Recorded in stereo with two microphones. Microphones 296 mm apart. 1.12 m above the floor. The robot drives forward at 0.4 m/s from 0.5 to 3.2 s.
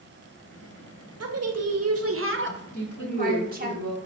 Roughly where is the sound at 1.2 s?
Right.